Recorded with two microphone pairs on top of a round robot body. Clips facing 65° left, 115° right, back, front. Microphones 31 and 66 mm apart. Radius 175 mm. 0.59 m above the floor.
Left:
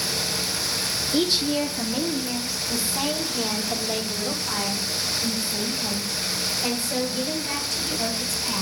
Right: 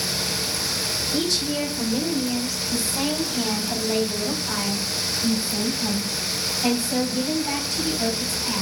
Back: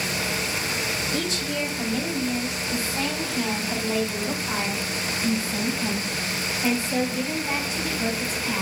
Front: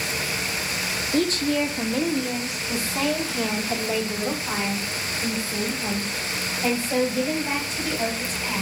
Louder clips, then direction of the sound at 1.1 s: Left 3 dB, front 5 dB; 10° left.